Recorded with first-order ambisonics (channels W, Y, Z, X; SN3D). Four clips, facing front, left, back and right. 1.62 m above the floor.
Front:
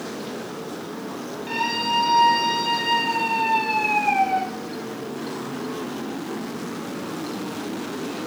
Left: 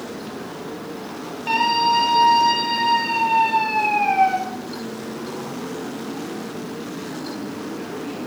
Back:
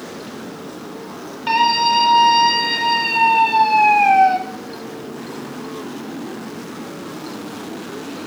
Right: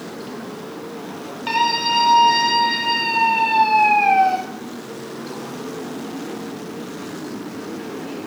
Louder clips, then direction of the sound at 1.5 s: Left 1 dB, back 9 dB; 135° right.